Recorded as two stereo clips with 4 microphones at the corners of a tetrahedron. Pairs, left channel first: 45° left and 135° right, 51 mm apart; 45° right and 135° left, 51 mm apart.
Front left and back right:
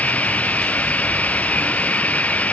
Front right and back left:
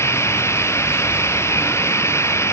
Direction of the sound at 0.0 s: 15° right.